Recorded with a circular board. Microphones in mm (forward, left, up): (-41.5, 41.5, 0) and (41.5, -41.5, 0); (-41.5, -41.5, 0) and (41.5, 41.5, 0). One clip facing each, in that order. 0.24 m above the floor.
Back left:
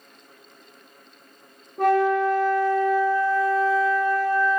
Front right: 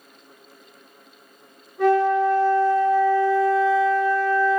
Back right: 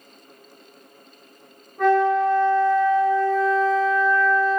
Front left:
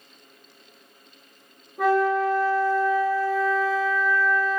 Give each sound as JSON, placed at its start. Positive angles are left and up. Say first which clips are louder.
{"t": 1.8, "sound": "a flute", "louder": "front right 1 dB, back right 3 dB", "azimuth_deg": 125, "distance_m": 0.5}